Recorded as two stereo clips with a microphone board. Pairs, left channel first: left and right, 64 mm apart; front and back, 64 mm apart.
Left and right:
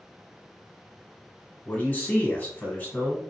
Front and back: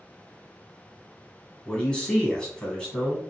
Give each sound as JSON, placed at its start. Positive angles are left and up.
{"t": 1.6, "sound": "a man speaking", "azimuth_deg": 65, "distance_m": 1.2}